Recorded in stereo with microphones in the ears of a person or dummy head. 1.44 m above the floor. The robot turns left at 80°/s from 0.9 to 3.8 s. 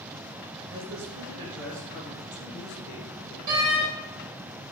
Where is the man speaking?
115° right, 1.4 m; by 3.4 s 45° left, 1.4 m.